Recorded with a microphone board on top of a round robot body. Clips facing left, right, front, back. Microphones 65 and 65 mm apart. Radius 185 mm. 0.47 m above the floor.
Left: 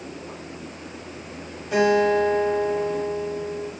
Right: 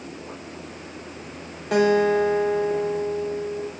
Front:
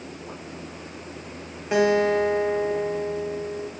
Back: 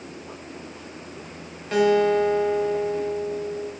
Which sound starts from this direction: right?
A guitar, at 1.7 s.